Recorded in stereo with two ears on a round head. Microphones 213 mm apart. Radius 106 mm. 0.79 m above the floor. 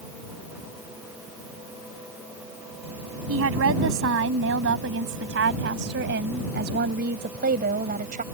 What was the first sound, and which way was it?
A woman speaking, 60° right (ahead or behind).